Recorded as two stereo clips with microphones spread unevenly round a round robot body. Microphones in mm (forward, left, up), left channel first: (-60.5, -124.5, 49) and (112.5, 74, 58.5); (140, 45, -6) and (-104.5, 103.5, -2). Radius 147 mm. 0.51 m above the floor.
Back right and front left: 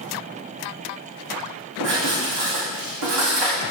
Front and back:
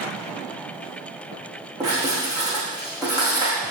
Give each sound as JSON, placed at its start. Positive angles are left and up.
{"t": 1.8, "sound": "writing", "azimuth_deg": 90, "distance_m": 5.5}